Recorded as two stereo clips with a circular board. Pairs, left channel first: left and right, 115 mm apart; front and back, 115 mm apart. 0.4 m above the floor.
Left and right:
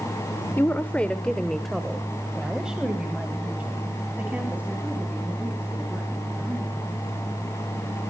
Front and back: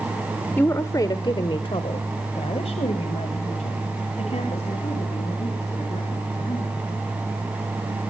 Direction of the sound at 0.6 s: 45° left.